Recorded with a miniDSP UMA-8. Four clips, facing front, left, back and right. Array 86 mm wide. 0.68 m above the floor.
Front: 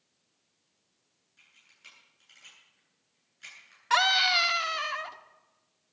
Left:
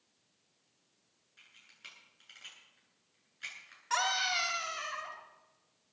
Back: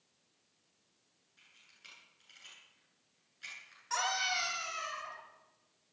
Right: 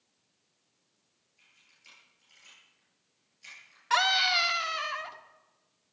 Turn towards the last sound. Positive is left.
turn(degrees=-25)